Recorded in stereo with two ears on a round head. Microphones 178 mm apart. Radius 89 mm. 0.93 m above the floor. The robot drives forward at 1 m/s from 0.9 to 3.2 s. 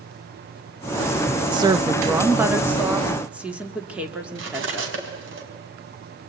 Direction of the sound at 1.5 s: 25° right (ahead or behind).